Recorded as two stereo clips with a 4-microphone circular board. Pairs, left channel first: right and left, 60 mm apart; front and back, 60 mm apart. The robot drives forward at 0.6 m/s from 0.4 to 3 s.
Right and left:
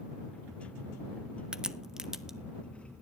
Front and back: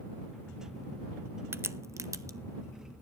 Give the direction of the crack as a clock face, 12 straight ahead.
7 o'clock.